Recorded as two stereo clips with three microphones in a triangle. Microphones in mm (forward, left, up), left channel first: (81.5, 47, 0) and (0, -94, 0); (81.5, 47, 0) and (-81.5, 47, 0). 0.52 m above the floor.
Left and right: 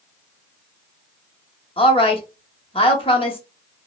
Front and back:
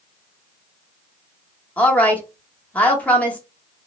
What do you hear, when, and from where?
1.8 s a woman speaking: 75° left, 0.9 m